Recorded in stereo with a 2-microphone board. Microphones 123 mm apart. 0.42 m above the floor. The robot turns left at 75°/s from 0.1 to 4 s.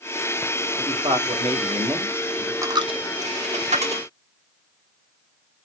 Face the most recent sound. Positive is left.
turn(degrees=-50)  # may be behind; listen again after turning